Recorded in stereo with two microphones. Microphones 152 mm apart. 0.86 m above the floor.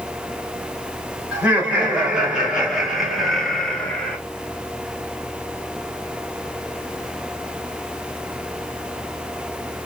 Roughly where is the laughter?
Centre.